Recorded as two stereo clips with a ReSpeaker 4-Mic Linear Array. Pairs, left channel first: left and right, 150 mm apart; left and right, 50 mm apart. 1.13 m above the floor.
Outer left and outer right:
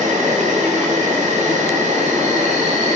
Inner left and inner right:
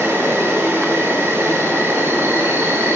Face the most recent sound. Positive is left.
turn(degrees=-50)  # may be behind; listen again after turning